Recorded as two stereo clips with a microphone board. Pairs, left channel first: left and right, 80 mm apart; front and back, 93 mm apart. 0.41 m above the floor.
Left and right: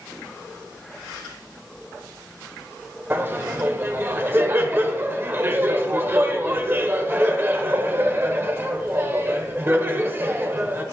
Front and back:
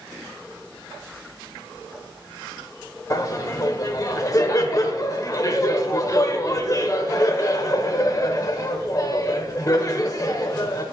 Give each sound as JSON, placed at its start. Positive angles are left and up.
{"t": 3.1, "sound": "laughter", "azimuth_deg": -35, "distance_m": 1.1}